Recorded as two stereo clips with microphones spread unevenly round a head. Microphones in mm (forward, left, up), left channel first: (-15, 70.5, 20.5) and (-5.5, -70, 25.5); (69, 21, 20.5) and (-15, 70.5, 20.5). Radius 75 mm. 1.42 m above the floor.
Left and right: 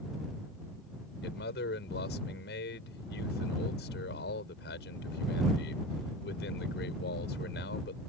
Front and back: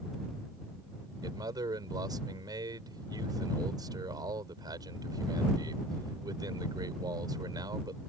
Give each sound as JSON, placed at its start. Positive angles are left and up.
{"t": 1.2, "sound": "a man speaking", "azimuth_deg": 100}